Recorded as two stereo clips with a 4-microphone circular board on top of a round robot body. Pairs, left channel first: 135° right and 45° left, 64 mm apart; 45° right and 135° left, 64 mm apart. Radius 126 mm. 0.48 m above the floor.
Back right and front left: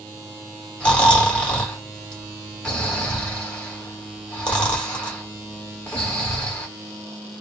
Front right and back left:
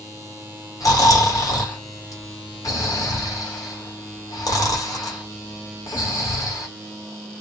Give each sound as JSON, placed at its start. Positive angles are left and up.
{"t": 0.8, "sound": "snoring", "azimuth_deg": -60, "distance_m": 1.6}